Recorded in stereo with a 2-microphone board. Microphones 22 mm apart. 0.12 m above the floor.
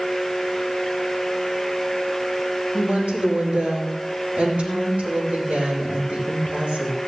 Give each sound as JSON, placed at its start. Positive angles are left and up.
{"t": 2.7, "sound": "a woman speaking", "side_deg": -75, "distance_m": 6.0}